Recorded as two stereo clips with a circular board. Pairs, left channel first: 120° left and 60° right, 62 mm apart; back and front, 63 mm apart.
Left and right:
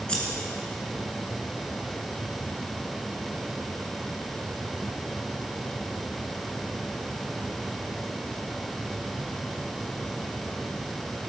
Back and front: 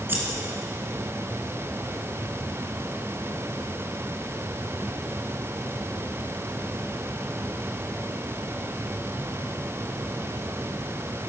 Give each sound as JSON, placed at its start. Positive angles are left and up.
{"t": 0.1, "sound": "scissors", "azimuth_deg": 50, "distance_m": 2.5}